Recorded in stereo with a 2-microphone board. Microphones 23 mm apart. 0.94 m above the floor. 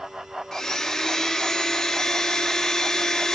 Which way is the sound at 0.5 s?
20° left (ahead or behind).